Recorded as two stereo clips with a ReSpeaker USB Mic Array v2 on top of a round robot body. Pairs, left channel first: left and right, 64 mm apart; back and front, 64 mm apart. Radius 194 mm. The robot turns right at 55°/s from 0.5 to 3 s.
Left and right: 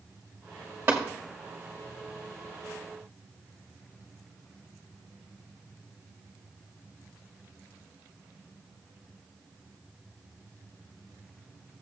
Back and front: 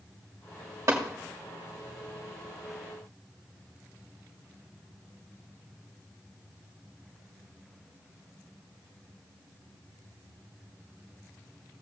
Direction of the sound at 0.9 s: 35° right.